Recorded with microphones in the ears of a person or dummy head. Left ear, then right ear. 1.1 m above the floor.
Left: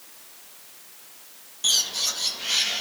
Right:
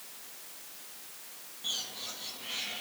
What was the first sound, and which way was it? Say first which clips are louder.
A bird: left 14 dB; 85° left.